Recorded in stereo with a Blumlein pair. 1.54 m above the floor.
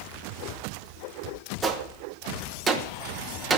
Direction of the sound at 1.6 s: 20° right.